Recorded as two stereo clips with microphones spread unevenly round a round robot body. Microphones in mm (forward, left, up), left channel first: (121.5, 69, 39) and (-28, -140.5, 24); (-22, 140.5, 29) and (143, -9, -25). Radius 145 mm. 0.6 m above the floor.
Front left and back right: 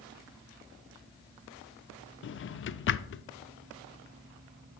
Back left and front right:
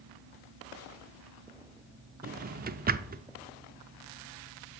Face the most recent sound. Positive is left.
turn(degrees=5)